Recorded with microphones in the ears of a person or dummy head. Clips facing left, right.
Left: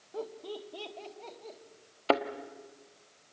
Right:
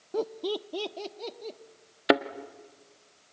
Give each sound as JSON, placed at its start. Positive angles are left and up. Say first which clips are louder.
{"t": 0.1, "sound": "laughter", "louder": "right 9 dB", "side_deg": -60, "distance_m": 0.9}
{"t": 2.1, "sound": "a thud", "louder": "right 4 dB", "side_deg": -20, "distance_m": 1.0}